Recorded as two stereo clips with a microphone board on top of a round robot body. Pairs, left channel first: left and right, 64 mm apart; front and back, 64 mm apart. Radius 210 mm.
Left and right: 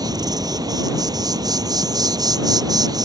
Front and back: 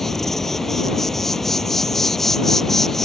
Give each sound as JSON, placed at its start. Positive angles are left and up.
{"t": 0.0, "sound": "an insect", "azimuth_deg": -85}